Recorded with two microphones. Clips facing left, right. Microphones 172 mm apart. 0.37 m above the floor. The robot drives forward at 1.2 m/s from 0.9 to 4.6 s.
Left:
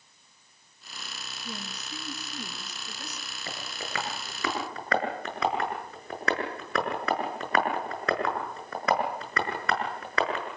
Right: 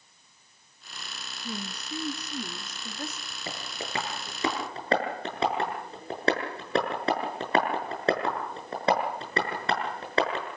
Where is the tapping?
25° right (ahead or behind), 7.5 m; by 10.5 s 30° right (ahead or behind), 6.5 m.